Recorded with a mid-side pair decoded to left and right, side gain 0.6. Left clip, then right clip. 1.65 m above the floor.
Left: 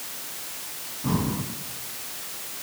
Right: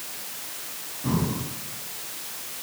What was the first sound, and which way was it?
Breathing, 5° left.